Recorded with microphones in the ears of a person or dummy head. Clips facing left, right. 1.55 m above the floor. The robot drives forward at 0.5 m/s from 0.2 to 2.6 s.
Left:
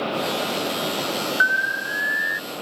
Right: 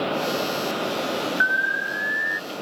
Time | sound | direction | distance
1.4 | an alarm | 55° left (ahead or behind) | ?